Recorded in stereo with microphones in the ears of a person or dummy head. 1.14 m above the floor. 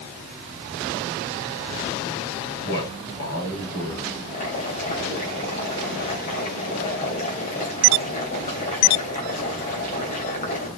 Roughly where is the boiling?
Left.